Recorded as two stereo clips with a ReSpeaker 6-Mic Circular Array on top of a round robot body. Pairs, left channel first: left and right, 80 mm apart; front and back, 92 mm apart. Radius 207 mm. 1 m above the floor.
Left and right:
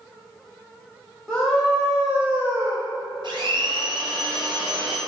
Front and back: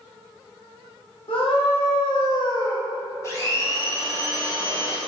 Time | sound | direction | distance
1.3 | a scream | 5° left | 2.5 m
3.2 | a blender | 60° right | 1.8 m